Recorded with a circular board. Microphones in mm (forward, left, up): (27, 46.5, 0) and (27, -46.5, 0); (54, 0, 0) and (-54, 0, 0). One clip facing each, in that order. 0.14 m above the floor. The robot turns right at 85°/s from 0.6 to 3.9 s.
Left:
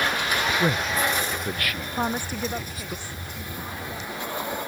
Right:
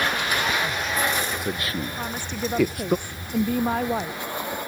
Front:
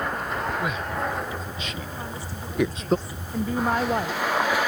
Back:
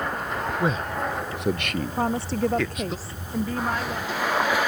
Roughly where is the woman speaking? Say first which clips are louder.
Left 3 dB, back 11 dB; behind left.